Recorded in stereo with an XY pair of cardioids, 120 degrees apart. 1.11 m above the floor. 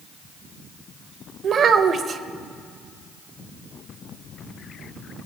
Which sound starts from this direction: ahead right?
A child speaking, at 1.4 s.